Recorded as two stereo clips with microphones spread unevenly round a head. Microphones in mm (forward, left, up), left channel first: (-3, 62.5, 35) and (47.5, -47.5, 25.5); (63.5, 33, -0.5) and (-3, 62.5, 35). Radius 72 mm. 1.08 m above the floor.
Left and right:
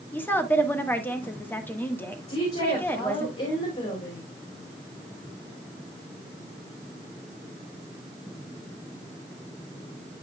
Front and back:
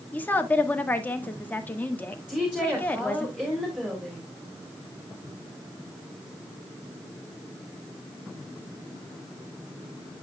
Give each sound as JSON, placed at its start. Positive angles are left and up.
{"t": 0.1, "sound": "a woman speaking", "azimuth_deg": 40, "distance_m": 1.4}
{"t": 2.3, "sound": "a woman speaking", "azimuth_deg": 80, "distance_m": 3.0}